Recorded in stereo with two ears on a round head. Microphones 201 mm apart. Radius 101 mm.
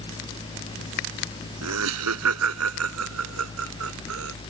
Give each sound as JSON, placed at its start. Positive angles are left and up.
{"t": 1.6, "sound": "laughter", "side_deg": -75}